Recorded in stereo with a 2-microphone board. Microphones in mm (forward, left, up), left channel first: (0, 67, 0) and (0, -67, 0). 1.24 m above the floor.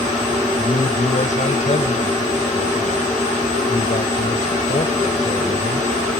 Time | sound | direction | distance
0.6 | a man speaking | 65° left (ahead or behind) | ?